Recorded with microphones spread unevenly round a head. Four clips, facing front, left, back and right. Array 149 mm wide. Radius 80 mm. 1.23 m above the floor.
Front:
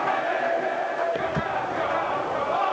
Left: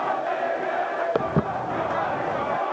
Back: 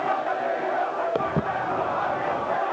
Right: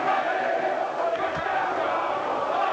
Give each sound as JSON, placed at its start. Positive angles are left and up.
{"t": 1.1, "sound": "footsteps", "azimuth_deg": 105}